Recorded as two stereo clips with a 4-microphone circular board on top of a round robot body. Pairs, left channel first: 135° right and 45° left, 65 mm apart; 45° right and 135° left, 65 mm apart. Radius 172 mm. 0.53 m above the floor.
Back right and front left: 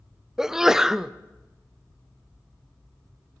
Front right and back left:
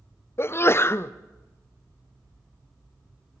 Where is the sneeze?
35° right, 0.7 m.